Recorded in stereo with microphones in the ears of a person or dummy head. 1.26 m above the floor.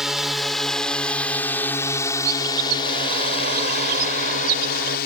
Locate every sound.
0.0 s a drone: centre (ahead or behind); by 5.1 s 55° left (ahead or behind)
2.2 s a bird: 50° right (ahead or behind)